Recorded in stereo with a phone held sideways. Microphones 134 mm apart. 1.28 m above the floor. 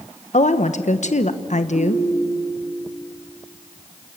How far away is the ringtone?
About 8 m.